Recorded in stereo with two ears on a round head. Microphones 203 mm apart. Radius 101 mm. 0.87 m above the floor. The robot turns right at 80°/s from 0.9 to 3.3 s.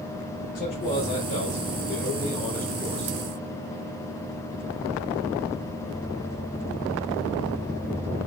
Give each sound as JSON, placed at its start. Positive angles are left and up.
{"t": 0.6, "sound": "a man speaking", "azimuth_deg": 35, "distance_m": 3.5}